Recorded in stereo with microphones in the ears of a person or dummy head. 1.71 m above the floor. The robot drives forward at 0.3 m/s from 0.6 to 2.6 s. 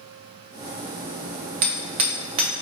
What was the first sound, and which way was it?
Hammering, 25° right (ahead or behind).